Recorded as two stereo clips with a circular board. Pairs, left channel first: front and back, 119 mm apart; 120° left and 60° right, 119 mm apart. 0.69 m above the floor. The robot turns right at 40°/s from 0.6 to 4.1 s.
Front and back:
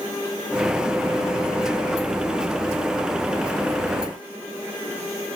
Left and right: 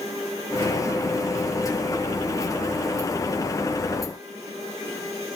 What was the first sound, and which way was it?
Only background noise.